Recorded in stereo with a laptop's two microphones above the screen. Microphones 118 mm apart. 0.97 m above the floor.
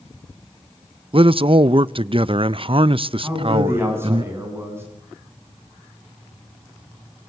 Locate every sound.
1.1 s a man speaking: 50° right (ahead or behind), 0.5 m
3.2 s a man speaking: 20° right (ahead or behind), 7.5 m